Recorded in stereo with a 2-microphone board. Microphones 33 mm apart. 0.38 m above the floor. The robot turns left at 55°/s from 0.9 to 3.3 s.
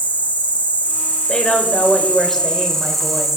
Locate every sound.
0.0 s an insect: 120° left, 1.4 m; by 3.4 s 15° right, 1.4 m
1.3 s a woman speaking: 75° left, 1.3 m; by 3.3 s 35° right, 1.3 m